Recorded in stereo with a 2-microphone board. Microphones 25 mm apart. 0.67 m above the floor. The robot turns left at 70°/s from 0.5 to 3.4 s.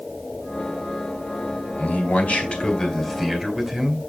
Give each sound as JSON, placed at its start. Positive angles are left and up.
{"t": 1.8, "sound": "a man speaking", "azimuth_deg": 105, "distance_m": 3.5}